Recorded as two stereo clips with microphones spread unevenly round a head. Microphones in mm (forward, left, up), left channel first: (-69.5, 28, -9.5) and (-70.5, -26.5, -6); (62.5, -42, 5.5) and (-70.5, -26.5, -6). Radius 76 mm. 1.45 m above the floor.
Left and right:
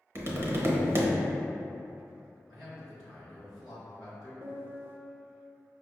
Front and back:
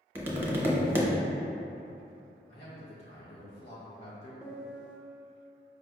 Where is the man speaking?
30° left, 1.9 m.